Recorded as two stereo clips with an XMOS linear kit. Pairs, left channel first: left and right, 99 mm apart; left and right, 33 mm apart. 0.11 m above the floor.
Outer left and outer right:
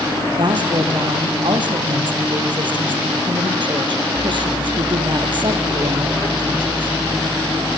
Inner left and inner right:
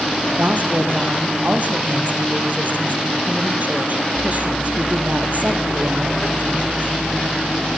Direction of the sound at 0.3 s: 50° right (ahead or behind).